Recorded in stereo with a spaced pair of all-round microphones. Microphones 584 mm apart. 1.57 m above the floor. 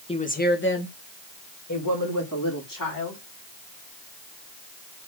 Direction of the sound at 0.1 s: 10° left (ahead or behind).